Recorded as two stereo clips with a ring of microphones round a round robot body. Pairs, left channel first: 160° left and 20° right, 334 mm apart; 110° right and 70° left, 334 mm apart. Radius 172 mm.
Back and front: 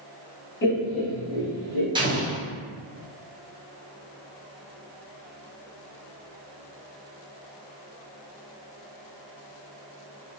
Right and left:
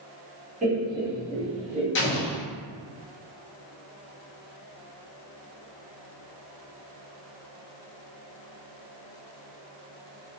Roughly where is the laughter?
Behind left.